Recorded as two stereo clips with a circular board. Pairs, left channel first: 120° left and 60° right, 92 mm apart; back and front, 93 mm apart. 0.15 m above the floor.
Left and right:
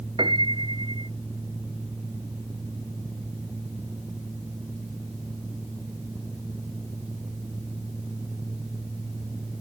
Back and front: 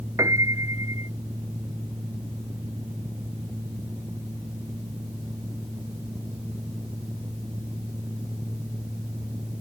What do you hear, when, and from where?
0.2 s a piano: 50° right